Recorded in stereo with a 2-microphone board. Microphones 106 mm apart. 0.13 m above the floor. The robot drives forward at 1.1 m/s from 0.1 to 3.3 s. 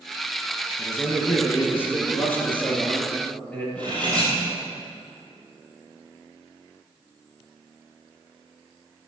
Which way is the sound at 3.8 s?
10° left (ahead or behind).